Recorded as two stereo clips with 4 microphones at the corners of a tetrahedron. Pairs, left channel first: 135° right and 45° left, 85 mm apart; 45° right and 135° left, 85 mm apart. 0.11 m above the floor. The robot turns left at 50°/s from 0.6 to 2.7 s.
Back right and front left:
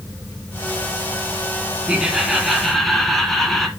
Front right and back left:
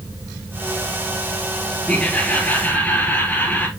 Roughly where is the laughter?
Ahead.